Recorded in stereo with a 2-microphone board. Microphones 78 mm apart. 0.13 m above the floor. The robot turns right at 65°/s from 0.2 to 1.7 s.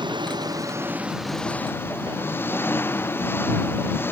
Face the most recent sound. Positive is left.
turn(degrees=25)